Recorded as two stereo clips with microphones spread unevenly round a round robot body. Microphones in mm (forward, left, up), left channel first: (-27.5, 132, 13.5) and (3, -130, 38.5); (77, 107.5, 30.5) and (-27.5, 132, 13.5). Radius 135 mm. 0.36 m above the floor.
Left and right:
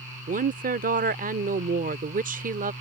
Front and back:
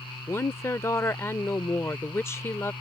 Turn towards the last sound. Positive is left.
turn(degrees=-70)